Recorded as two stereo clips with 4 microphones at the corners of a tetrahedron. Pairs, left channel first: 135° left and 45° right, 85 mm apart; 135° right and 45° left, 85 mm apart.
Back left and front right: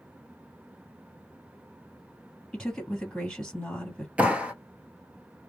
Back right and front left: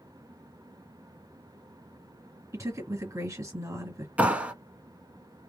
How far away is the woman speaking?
About 2 m.